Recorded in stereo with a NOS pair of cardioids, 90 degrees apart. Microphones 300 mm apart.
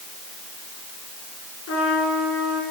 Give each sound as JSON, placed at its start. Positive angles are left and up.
{"t": 1.7, "sound": "a trumpet", "azimuth_deg": 50, "distance_m": 5.0}